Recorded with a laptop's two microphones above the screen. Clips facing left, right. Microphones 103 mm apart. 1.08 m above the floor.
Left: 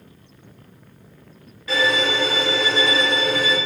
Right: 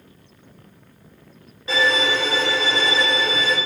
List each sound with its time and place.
1.7 s a violin: 25° right (ahead or behind), 1.4 m